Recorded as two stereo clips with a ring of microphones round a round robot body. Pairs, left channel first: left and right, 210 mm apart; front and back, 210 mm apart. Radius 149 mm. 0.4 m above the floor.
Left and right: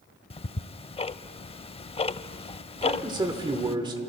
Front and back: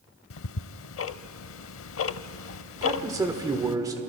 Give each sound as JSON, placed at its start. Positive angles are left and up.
{"t": 0.3, "sound": "ticking", "azimuth_deg": 20, "distance_m": 0.5}
{"t": 2.8, "sound": "a man speaking", "azimuth_deg": -130, "distance_m": 1.4}